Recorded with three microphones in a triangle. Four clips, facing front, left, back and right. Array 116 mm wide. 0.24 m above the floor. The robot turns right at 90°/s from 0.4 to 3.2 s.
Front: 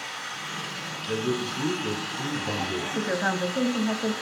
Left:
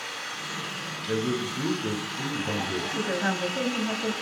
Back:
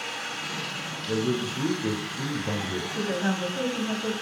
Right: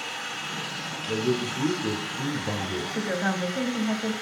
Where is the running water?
170° right, 4 m; by 4.2 s 85° left, 4 m.